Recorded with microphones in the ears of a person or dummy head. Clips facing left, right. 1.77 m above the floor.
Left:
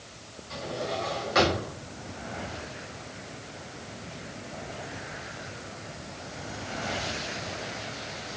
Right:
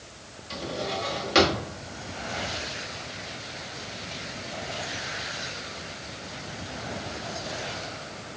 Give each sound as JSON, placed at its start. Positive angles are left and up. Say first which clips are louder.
{"t": 0.5, "sound": "a drawer", "louder": "right 1 dB", "side_deg": -40, "distance_m": 1.7}